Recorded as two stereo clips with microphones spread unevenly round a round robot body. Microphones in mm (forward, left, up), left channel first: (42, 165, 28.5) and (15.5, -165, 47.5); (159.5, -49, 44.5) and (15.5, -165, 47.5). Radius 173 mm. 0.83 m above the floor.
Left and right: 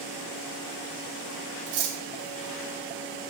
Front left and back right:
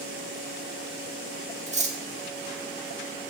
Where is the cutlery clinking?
85° right, 1.7 m.